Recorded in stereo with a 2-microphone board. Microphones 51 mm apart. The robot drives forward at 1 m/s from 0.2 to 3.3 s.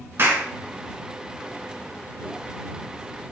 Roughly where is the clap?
Right.